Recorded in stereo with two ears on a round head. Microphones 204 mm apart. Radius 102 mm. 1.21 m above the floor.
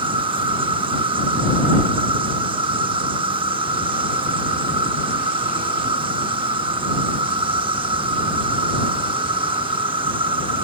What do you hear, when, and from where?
0.0 s an insect: 25° right (ahead or behind)